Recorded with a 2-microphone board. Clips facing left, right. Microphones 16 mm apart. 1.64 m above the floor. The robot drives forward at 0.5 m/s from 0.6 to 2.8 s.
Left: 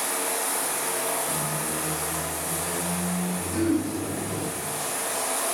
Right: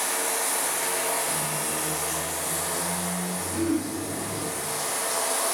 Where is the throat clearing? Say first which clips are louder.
Left 2 dB; 25° left (ahead or behind), 3 m.